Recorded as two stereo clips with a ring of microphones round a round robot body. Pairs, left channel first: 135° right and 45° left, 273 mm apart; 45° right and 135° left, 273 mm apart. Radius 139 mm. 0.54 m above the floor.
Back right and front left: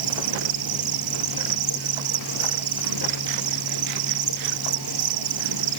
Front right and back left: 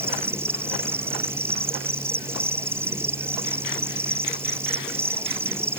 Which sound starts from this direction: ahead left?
An insect, at 0.0 s.